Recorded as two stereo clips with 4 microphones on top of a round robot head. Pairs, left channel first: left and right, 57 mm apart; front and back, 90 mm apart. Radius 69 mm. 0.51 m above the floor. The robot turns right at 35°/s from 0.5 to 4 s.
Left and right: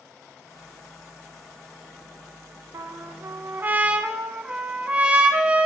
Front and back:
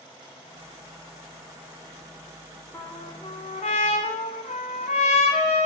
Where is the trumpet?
65° right, 0.7 m; by 5.7 s 20° right, 0.7 m.